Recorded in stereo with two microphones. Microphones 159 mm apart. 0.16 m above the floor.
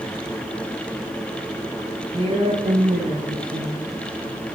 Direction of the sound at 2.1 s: 30° right (ahead or behind).